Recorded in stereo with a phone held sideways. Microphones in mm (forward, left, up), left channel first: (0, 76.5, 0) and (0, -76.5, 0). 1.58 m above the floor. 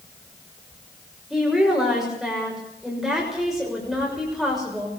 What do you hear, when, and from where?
1.3 s a woman speaking: centre (ahead or behind), 6.5 m